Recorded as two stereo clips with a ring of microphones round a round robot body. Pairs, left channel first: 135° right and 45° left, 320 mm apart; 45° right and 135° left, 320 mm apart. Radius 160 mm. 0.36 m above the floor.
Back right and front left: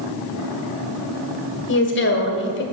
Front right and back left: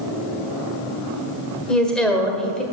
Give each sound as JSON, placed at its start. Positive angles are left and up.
{"t": 1.7, "sound": "a woman speaking", "azimuth_deg": -130, "distance_m": 1.6}